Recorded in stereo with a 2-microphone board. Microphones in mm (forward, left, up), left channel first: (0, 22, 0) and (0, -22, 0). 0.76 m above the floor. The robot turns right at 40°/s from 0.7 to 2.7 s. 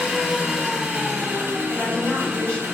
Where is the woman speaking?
125° left, 1.6 m; by 2.6 s 165° left, 1.6 m.